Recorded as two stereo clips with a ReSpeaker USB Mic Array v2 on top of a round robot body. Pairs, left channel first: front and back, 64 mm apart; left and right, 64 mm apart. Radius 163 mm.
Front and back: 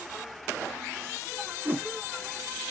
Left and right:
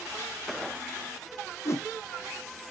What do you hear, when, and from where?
1.6 s a whoosh: 125° left, 0.7 m